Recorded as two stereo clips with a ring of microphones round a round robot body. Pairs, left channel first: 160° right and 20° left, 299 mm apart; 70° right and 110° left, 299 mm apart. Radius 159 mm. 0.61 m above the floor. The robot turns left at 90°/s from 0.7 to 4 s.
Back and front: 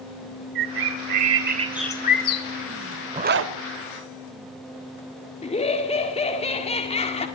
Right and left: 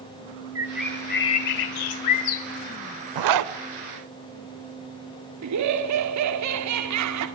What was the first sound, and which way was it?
A bird, 30° left.